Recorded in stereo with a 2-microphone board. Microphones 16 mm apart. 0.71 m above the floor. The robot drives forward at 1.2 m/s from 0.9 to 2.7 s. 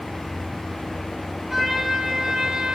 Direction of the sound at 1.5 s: 25° right (ahead or behind).